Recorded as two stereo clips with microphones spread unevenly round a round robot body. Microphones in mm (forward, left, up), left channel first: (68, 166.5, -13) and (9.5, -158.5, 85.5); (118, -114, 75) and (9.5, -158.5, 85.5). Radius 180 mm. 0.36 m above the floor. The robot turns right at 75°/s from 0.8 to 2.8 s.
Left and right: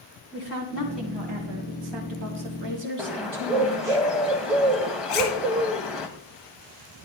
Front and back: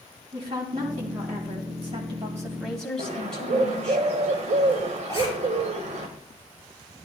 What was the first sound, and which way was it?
A woman speaking, 150° left.